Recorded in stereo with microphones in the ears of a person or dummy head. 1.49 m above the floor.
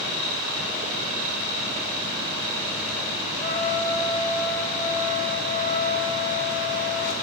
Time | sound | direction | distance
3.4 | a trumpet | 45° left (ahead or behind) | 6.5 m